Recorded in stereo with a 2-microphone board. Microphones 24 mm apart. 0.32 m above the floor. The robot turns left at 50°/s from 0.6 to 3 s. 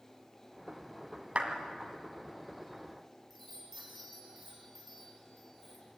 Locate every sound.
1.4 s a clap: 55° right (ahead or behind), 2 m; by 1.5 s 50° right (ahead or behind), 2 m
3.3 s a chime: 5° left (ahead or behind), 5.5 m